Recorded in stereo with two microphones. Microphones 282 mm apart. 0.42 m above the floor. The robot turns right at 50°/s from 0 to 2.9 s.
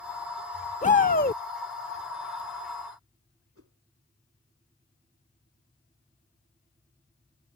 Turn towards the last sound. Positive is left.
turn(degrees=-60)  # may be behind; listen again after turning